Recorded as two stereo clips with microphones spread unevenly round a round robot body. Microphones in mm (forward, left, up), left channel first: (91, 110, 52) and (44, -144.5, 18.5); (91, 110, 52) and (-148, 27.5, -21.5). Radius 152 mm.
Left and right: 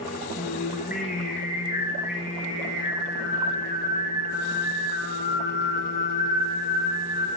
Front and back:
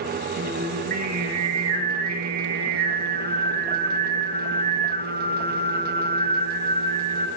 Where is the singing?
145° left, 3.5 m.